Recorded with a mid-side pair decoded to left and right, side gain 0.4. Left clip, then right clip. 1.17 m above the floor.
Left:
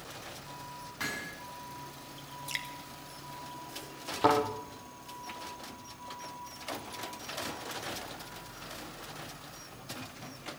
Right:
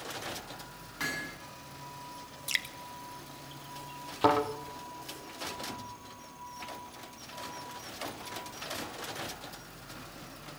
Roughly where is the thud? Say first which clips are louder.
Even; ahead.